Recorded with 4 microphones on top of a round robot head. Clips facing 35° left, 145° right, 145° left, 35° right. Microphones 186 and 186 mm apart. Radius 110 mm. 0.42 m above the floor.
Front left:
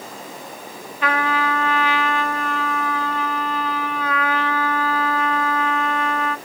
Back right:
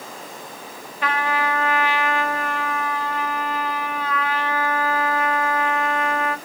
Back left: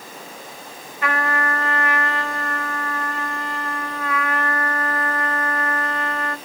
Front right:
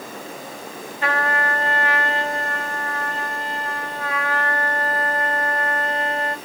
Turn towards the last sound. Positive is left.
turn(degrees=30)